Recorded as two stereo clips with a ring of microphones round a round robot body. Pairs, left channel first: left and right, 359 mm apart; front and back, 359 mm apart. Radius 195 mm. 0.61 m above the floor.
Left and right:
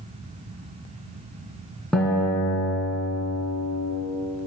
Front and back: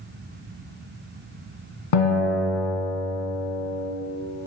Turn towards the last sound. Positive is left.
turn(degrees=5)